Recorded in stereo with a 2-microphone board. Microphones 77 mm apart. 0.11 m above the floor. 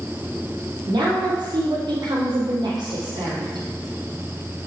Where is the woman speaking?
70° right (ahead or behind), 4.5 m.